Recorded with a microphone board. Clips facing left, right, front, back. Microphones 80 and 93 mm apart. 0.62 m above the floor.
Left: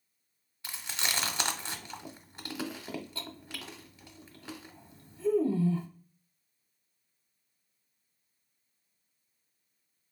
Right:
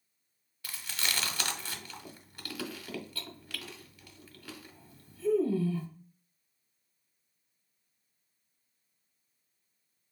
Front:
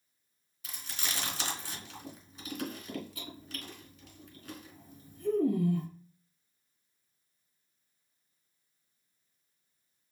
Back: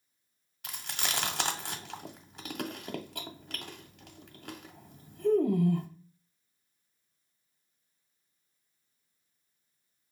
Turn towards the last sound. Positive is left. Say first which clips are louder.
# left 1 dB, back 4 dB
turn(degrees=155)